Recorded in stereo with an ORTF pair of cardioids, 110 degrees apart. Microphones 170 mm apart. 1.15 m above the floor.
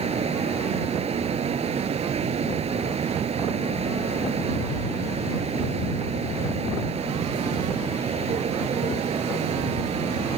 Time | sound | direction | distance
0.0 | a fan | 40° right | ?